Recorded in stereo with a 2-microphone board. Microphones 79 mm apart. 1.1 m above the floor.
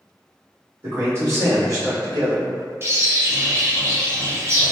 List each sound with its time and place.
0.8 s a man speaking: 30° right (ahead or behind), 1.5 m; by 2.7 s 55° right (ahead or behind), 1.0 m
2.8 s a bird: 30° right (ahead or behind), 0.6 m